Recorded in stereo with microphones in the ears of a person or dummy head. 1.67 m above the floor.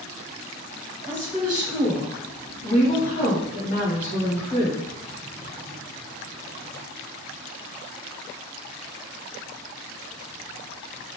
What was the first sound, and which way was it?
A woman speaking, 5° left (ahead or behind).